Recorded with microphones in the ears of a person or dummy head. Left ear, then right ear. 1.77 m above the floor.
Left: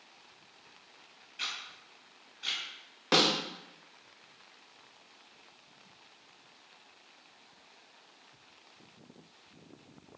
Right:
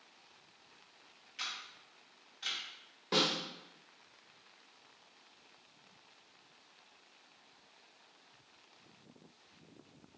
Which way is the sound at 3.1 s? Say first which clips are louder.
Left 6 dB; 40° left (ahead or behind).